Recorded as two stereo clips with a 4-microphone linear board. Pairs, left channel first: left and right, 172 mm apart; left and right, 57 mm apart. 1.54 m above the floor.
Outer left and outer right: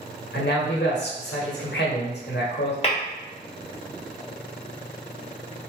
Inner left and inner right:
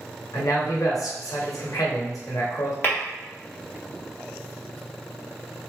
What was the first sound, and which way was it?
A man speaking, 85° left.